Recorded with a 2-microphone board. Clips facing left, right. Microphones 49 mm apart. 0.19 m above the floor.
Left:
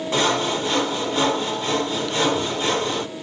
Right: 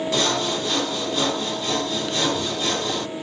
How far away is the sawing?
About 1.4 m.